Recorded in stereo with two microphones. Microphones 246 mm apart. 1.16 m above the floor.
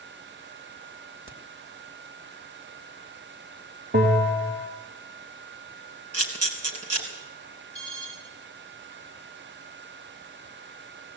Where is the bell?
40° right (ahead or behind), 3.5 m.